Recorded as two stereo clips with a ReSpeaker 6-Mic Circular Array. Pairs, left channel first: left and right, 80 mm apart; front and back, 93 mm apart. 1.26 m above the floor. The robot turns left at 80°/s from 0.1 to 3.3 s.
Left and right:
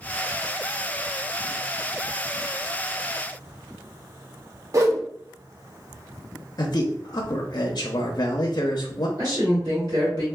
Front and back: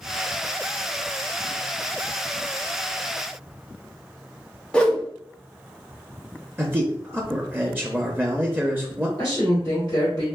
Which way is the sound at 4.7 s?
75° right.